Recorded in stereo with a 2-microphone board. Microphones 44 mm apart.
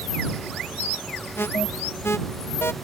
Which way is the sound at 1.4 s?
60° left (ahead or behind).